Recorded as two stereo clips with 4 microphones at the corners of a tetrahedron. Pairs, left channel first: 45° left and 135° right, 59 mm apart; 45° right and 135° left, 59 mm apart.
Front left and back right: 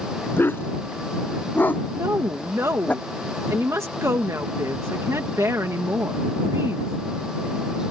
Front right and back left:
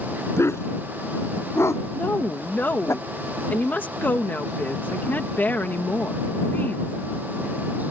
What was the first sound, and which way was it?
A dog barking, 5° right.